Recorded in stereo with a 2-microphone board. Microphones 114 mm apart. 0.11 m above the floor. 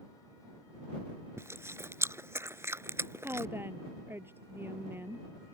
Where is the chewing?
25° right (ahead or behind).